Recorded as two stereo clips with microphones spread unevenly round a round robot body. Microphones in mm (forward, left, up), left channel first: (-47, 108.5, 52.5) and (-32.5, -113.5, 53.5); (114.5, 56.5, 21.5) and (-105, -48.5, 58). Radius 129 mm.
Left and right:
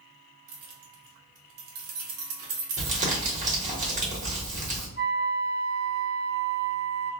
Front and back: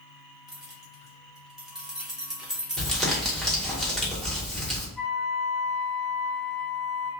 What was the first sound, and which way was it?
Keys jangling, 65° right.